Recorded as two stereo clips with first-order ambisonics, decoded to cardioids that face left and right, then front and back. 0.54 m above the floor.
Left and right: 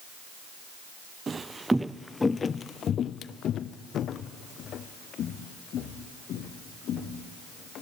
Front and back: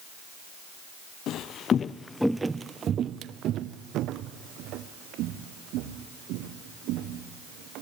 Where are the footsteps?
25° right, 0.7 m; by 7.8 s 145° left, 3 m.